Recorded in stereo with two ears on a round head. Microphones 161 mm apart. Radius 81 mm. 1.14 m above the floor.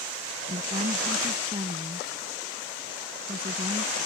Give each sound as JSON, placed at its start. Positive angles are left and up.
{"t": 0.5, "sound": "a woman speaking", "side_deg": -30}